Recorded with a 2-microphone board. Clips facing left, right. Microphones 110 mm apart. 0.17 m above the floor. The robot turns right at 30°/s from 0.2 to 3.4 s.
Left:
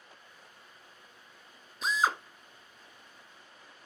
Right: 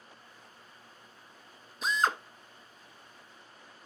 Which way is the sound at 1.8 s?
Centre (ahead or behind).